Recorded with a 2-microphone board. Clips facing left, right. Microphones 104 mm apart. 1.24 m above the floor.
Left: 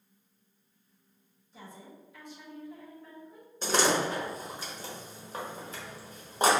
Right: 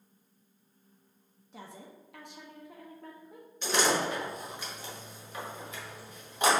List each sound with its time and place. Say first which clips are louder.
1.5 s a woman speaking: right 1 dB; 70° right (ahead or behind), 0.8 m
3.6 s a door slam: left 1 dB; 35° left (ahead or behind), 1.0 m